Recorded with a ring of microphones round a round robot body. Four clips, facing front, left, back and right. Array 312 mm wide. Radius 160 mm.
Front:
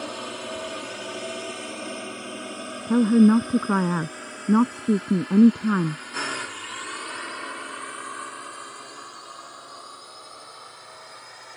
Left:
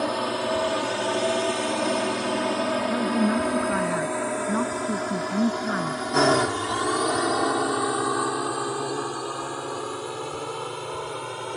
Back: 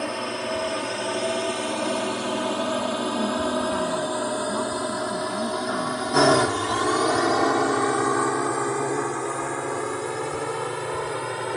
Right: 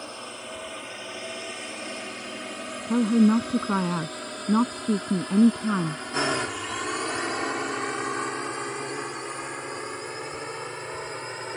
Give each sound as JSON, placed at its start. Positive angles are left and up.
{"t": 0.0, "sound": "a drone", "azimuth_deg": 110}
{"t": 2.9, "sound": "a woman speaking", "azimuth_deg": -20}